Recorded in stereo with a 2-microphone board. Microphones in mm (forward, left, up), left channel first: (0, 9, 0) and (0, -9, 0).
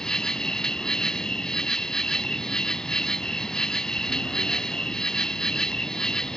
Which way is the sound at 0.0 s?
45° left (ahead or behind).